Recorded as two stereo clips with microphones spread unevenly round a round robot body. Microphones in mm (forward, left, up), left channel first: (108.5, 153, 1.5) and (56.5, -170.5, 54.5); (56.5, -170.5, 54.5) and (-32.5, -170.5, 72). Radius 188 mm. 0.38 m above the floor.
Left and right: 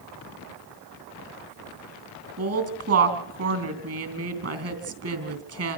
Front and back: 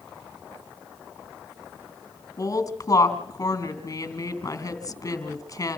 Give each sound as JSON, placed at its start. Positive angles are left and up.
{"t": 2.4, "sound": "a woman speaking", "azimuth_deg": -50, "distance_m": 3.5}